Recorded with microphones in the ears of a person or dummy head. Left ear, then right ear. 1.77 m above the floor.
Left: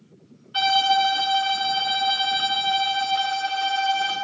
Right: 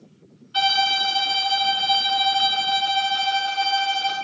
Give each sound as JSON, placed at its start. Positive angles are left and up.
{"t": 0.5, "sound": "a violin", "side_deg": -5, "distance_m": 0.7}